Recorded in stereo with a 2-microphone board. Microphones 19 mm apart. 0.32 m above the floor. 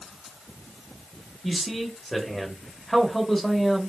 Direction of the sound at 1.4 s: 10° left (ahead or behind).